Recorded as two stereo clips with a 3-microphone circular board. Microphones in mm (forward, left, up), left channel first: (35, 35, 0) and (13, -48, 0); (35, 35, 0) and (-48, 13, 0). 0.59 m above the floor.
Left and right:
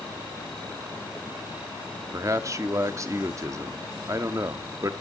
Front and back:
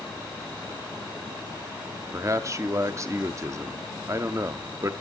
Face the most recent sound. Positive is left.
turn(degrees=-135)